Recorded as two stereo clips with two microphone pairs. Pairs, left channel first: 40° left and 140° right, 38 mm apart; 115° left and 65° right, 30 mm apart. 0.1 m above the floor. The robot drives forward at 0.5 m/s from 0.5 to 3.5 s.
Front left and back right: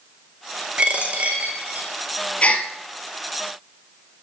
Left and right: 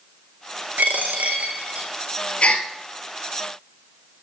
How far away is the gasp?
About 1.3 m.